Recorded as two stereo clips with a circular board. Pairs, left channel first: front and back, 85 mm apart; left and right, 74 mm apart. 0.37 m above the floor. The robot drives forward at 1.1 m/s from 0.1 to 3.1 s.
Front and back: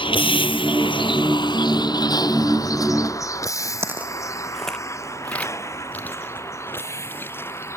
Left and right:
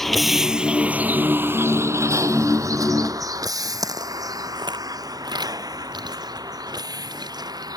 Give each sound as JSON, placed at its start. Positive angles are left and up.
{"t": 0.0, "sound": "a vehicle", "azimuth_deg": 5}
{"t": 3.8, "sound": "footsteps", "azimuth_deg": -120}